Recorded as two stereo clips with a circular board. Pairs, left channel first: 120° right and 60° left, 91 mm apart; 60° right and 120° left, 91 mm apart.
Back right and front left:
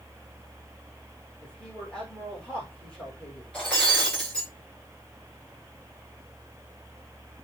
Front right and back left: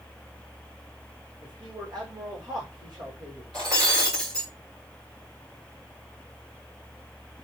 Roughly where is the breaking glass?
Behind.